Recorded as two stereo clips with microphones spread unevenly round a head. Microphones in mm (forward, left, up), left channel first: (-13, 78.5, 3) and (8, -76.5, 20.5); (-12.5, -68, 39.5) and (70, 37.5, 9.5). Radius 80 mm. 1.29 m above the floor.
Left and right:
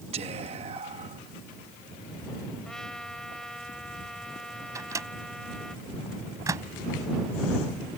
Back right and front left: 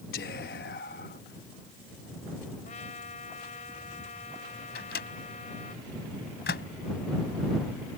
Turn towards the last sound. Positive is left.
turn(degrees=-150)